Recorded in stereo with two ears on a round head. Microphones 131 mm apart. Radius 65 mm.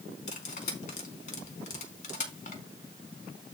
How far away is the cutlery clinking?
About 4 m.